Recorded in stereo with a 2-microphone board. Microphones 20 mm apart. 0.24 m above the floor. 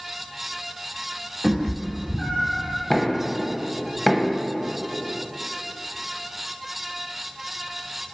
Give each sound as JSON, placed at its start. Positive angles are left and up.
{"t": 1.4, "sound": "a cat meowing", "side_deg": 15, "distance_m": 2.5}
{"t": 2.9, "sound": "knocking", "side_deg": 20, "distance_m": 0.6}